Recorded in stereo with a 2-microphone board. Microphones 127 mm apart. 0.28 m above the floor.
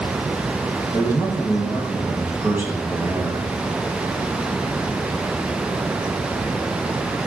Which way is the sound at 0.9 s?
15° right (ahead or behind).